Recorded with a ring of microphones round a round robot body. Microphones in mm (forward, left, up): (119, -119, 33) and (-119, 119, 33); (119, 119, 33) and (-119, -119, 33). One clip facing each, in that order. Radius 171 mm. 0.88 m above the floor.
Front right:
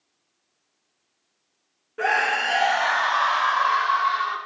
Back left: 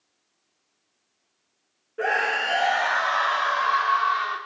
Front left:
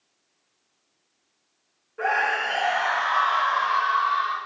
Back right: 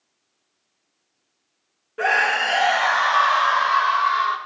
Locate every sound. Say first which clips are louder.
2.0 s a scream: even, back right 3 dB; 110° right, 1.5 m; by 4.4 s 120° right, 3 m